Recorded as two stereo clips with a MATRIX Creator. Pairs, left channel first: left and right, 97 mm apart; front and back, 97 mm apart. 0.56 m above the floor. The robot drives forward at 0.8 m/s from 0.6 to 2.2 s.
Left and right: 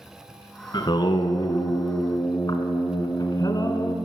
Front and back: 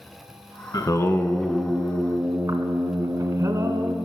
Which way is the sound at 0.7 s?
50° left.